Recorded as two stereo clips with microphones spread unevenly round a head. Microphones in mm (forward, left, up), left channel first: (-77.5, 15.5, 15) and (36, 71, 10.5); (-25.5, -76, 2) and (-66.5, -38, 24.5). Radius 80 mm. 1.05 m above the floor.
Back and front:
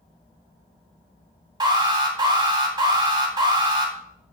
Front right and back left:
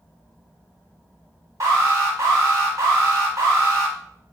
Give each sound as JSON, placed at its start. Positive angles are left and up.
{"t": 1.6, "sound": "an alarm", "azimuth_deg": 75, "distance_m": 2.5}